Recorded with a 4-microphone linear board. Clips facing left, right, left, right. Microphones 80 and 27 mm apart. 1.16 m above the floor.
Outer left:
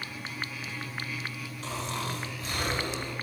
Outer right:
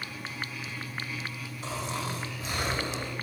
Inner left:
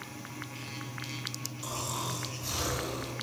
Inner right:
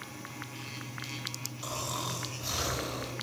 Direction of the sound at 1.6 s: 10° right (ahead or behind).